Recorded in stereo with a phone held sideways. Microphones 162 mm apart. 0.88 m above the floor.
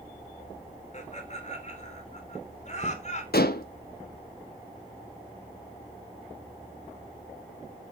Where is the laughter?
45° left (ahead or behind), 3 m.